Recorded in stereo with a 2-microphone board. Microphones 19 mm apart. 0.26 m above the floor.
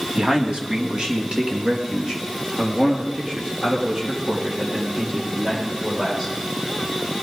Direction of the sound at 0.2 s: 50° right (ahead or behind).